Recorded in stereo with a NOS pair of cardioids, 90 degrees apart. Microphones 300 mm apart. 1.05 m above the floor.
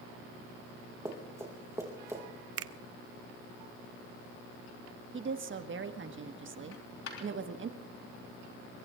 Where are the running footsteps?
10° right, 4 m.